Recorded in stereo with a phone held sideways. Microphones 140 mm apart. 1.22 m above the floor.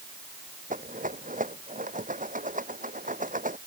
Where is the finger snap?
I don't hear a finger snap.